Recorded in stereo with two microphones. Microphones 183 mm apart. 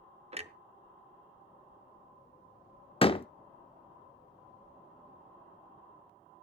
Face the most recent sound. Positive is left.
turn(degrees=30)  # may be behind; listen again after turning